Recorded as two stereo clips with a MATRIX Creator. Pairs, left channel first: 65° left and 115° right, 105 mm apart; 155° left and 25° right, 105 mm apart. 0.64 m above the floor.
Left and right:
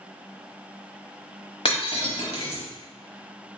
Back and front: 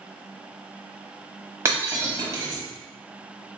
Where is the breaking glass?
40° left, 1.1 m.